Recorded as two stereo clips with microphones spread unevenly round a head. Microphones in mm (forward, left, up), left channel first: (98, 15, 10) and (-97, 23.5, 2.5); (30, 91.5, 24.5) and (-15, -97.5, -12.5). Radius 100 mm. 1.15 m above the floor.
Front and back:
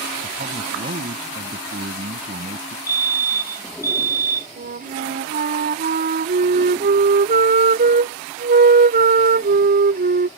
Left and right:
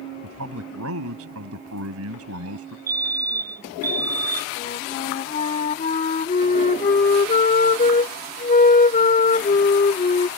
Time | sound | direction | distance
0.2 | a man speaking | 125° right | ?
2.9 | a fire alarm | 80° right | ?
4.6 | a flute | 130° left | ?